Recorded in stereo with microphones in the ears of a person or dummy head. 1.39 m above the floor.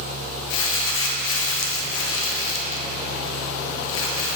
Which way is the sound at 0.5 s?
70° left (ahead or behind).